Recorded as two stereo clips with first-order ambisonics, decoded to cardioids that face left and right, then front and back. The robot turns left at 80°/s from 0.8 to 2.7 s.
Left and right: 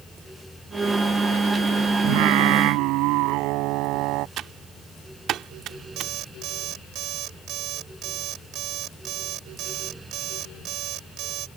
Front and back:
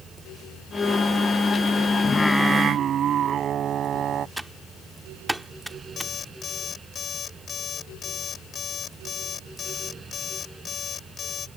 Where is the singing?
65° right; by 4.3 s 120° right.